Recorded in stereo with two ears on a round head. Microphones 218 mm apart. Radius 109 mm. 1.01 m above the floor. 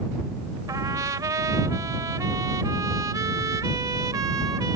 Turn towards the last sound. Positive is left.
turn(degrees=-15)  # may be behind; listen again after turning